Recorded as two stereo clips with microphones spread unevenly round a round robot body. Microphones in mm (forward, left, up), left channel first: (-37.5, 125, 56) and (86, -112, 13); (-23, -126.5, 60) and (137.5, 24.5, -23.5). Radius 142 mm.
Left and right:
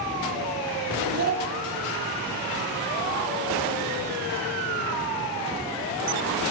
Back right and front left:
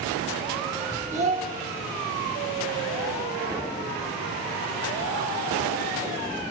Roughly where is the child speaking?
Ahead.